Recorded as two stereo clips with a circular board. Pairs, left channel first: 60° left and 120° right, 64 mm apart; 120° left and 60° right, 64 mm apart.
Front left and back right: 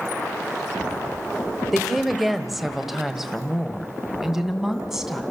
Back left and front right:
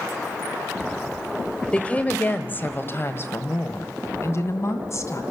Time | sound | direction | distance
1.7 | a woman speaking | 145° left | 1.3 m